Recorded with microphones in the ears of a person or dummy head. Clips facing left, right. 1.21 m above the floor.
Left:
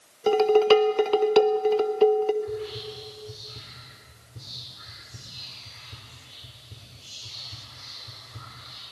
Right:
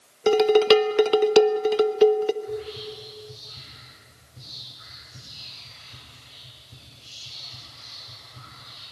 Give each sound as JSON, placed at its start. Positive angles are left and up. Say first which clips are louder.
{"t": 0.3, "sound": "dishes clattering", "louder": "right 1 dB", "side_deg": -15, "distance_m": 0.5}
{"t": 2.4, "sound": "whispering", "louder": "even", "side_deg": 70, "distance_m": 4.5}